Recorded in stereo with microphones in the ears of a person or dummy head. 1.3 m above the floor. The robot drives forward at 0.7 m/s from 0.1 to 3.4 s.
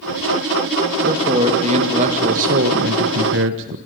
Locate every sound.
1.0 s a man speaking: 30° right (ahead or behind), 2.5 m; by 3.8 s 65° right (ahead or behind), 1.3 m